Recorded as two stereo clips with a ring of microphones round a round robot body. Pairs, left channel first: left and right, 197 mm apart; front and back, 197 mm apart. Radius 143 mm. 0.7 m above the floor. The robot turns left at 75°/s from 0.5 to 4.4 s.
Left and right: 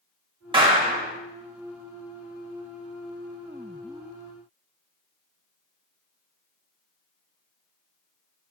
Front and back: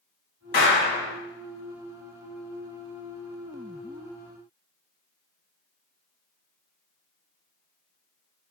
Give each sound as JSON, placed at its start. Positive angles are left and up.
{"t": 0.5, "sound": "a clap", "azimuth_deg": -30, "distance_m": 1.0}